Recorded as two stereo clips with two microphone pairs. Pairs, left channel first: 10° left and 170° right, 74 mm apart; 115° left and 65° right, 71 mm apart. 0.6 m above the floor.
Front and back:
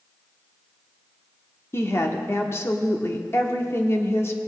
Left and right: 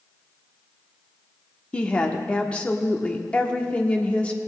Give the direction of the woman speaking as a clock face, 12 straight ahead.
10 o'clock.